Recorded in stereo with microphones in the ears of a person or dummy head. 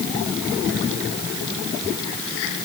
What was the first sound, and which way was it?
Only background noise.